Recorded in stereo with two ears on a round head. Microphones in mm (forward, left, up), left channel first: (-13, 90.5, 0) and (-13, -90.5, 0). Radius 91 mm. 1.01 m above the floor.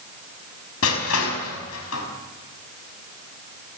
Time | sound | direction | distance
0.8 | crushing | 75° left (ahead or behind) | 5.5 m